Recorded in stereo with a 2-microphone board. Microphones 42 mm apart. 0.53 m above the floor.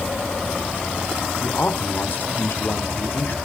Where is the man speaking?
55° left (ahead or behind), 1.5 m.